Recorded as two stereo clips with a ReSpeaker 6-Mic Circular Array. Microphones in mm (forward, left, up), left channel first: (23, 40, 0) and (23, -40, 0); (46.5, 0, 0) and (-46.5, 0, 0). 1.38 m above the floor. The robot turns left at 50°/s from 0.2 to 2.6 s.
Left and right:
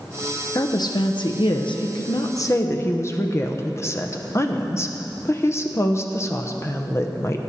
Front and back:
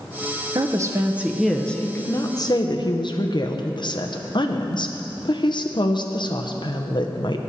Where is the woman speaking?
135° left, 0.8 m; by 7.4 s 35° left, 0.8 m.